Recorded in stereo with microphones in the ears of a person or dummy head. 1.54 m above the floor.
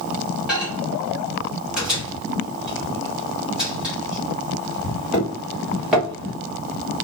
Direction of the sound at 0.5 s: 5° right (ahead or behind).